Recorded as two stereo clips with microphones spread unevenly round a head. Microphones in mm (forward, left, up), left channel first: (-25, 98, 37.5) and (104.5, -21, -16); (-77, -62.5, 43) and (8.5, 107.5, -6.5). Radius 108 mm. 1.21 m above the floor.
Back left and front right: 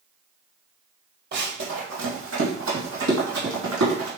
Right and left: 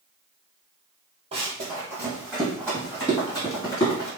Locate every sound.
1.3 s running footsteps: 10° right, 1.9 m; by 4.1 s 55° right, 3.5 m